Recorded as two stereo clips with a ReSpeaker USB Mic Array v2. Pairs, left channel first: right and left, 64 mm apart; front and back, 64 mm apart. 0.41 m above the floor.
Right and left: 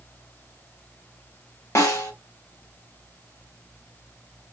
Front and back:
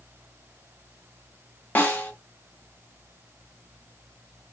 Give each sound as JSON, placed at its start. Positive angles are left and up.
{"t": 1.8, "sound": "a snare drum", "azimuth_deg": -55, "distance_m": 1.0}